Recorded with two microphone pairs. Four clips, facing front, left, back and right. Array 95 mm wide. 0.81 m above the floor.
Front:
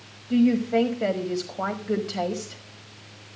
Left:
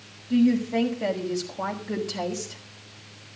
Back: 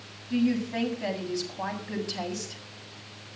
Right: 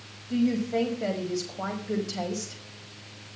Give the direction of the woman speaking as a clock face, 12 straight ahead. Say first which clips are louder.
Left 4 dB, front 6 dB; 12 o'clock.